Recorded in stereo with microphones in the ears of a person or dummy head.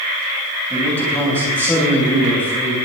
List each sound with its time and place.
0.7 s a man speaking: 10° left (ahead or behind), 7.5 m; by 2.8 s 15° left (ahead or behind), 6.5 m